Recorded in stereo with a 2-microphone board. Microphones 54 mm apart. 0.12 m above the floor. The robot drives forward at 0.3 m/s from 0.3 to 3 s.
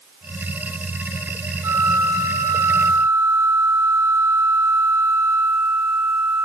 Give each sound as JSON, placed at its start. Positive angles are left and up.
{"t": 1.6, "sound": "a flute", "side_deg": -75, "distance_m": 0.7}